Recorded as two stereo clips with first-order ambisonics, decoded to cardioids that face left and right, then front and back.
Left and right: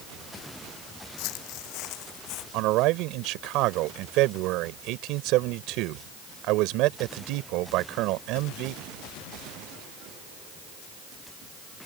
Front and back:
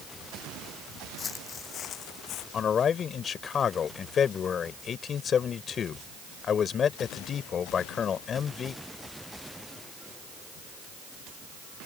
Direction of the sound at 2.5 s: 65° right.